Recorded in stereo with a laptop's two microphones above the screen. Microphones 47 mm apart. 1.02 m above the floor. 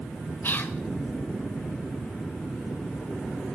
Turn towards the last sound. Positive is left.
turn(degrees=45)  # may be behind; listen again after turning